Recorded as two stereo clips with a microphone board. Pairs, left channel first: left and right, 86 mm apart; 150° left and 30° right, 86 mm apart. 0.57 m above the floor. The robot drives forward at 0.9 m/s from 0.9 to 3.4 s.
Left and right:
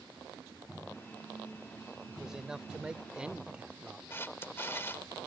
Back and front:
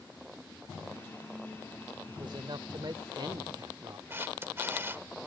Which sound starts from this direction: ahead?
A man speaking, at 2.1 s.